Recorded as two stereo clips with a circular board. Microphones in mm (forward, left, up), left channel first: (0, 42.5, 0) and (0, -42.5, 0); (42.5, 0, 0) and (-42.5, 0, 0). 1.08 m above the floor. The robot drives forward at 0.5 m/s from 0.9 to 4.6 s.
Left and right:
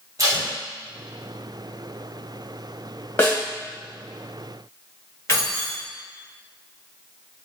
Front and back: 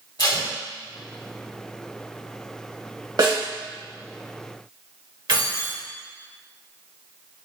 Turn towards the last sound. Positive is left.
turn(degrees=150)